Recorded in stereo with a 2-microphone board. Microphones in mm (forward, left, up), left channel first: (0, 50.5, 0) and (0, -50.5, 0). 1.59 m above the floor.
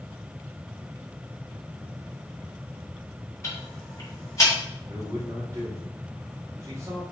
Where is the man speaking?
30° right (ahead or behind), 1.6 m.